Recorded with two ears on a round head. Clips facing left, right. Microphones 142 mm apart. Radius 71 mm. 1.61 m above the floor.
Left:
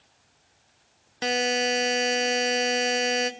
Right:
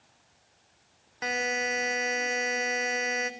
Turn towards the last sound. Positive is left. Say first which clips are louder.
# left 6 dB
turn(degrees=35)  # may be behind; listen again after turning